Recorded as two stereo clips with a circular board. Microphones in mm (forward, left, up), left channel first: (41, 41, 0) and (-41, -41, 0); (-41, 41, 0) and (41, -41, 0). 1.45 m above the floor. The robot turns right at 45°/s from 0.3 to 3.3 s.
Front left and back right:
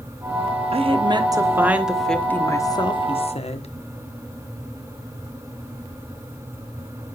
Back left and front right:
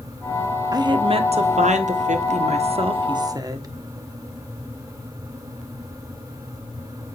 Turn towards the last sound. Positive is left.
turn(degrees=15)